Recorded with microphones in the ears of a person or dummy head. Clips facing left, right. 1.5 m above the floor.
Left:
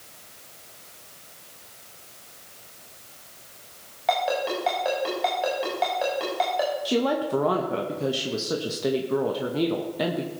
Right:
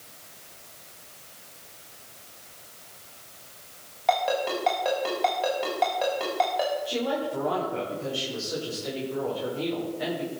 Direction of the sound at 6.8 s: 80° left.